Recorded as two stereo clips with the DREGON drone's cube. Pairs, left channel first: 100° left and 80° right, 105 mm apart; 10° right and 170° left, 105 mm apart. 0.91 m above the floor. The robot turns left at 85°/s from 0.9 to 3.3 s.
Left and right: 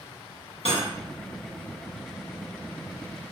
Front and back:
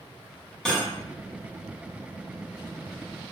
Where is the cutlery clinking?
75° left, 0.7 m.